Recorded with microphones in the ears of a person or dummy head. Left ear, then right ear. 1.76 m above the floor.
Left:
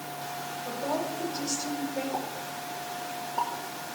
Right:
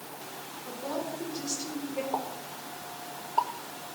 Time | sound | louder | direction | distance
0.7 | a woman speaking | left 3 dB | 5° right (ahead or behind) | 7.5 m
2.1 | a pop | left 1 dB | 45° right (ahead or behind) | 1.5 m